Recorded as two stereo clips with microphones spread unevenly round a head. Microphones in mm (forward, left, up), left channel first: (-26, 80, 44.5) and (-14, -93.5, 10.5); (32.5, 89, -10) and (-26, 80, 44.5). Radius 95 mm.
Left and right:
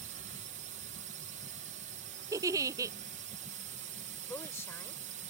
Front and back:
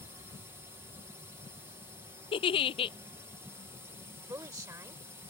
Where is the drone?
75° right.